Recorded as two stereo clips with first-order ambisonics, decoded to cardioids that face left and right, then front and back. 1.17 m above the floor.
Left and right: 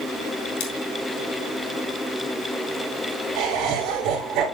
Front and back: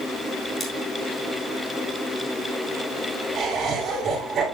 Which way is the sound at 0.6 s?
80° left.